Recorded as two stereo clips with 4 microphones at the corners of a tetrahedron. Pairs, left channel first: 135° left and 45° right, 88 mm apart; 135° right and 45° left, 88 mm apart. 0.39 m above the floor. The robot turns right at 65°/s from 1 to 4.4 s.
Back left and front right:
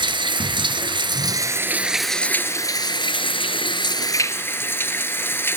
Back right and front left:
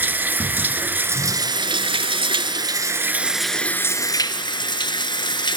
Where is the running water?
25° right, 1.1 m; by 5.6 s 160° right, 1.1 m.